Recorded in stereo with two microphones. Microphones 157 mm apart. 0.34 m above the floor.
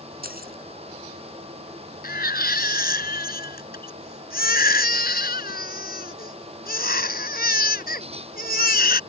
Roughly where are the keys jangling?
Right.